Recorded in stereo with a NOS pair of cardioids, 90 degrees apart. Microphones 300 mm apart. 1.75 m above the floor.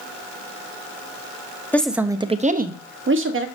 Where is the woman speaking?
5° left, 0.8 m; by 3.5 s 45° right, 1.4 m.